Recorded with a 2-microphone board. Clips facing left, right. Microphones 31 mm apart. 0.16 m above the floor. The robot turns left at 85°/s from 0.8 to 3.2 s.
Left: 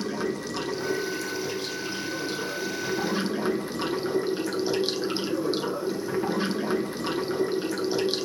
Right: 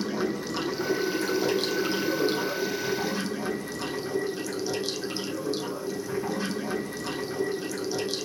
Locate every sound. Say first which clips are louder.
0.0 s running water: even; 10° right, 0.9 m; by 8.3 s 150° left, 0.9 m